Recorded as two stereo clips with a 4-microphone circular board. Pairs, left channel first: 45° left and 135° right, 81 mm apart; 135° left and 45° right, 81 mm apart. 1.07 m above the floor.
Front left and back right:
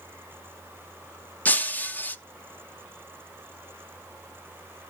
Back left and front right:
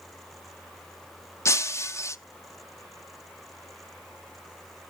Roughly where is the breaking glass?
Left.